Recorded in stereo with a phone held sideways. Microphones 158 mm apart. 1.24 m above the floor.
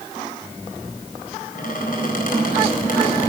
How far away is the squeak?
About 4 m.